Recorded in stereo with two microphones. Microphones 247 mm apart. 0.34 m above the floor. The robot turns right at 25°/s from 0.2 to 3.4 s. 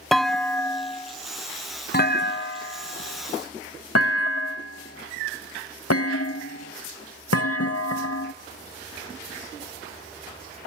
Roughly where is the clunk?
Centre.